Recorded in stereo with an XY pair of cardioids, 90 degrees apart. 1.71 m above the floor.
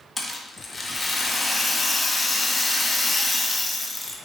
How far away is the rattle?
About 0.9 m.